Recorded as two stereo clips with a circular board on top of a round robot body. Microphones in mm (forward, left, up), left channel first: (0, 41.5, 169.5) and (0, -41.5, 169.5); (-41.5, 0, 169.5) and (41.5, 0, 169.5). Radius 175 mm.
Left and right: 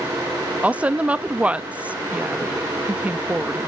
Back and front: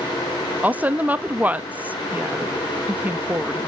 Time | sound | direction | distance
0.6 | a woman speaking | 40° right | 1.3 m